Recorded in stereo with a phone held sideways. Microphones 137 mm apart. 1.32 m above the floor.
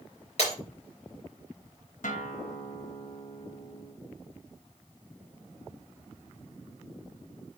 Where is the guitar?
75° left (ahead or behind), 1.2 m.